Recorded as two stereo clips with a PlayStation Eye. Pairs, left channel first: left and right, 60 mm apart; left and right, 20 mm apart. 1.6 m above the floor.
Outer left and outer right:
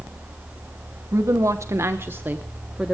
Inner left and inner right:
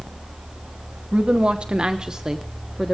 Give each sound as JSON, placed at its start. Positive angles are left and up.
{"t": 1.1, "sound": "a woman speaking", "side_deg": -60, "distance_m": 1.0}